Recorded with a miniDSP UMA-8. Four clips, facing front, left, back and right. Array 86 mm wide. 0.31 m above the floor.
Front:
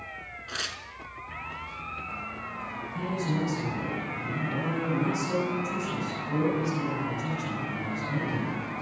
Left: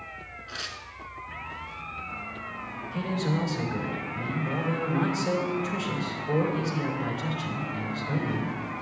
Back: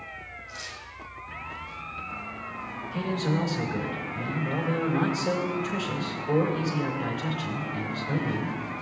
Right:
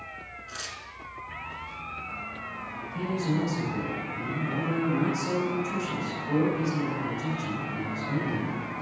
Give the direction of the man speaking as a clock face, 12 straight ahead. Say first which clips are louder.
Even, back 3 dB; 7 o'clock.